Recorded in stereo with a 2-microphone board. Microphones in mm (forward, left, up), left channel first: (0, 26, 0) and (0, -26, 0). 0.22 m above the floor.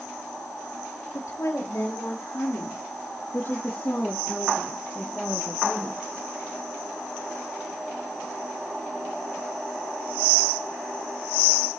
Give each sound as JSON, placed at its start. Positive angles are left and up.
{"t": 1.1, "sound": "a woman speaking", "side_deg": 70, "distance_m": 4.0}